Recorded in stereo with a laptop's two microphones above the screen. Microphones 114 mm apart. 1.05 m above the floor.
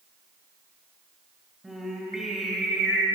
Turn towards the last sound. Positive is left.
turn(degrees=-5)  # may be behind; listen again after turning